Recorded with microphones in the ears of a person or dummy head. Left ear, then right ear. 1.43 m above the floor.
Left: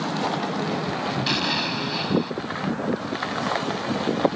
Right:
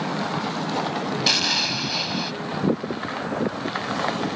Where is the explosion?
25° right (ahead or behind).